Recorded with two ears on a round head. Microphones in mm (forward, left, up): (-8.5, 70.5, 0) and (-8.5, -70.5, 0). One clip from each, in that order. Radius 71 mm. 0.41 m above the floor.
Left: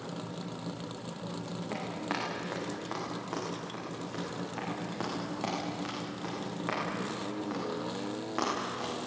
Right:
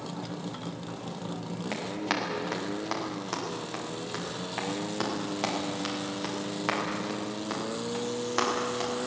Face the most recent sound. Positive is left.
turn(degrees=-70)  # may be behind; listen again after turning